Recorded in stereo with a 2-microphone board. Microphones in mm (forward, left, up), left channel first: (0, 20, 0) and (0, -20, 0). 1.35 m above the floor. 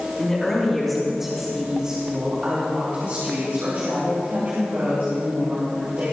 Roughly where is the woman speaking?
Centre.